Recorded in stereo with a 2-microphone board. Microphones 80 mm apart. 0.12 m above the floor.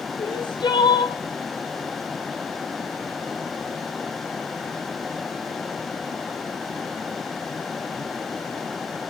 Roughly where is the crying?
Left.